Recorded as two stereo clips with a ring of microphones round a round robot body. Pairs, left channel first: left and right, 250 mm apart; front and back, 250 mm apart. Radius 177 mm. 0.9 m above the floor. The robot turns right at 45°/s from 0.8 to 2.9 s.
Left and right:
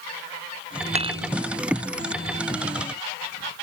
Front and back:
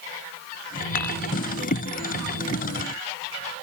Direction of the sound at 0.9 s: 25° right.